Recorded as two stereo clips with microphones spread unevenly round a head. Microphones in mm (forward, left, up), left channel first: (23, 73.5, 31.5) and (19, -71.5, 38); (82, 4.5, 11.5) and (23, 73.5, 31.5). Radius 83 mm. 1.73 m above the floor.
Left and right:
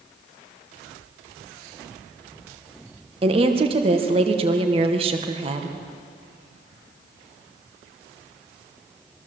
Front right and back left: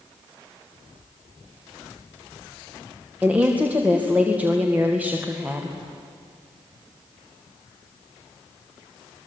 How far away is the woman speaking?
About 2.0 m.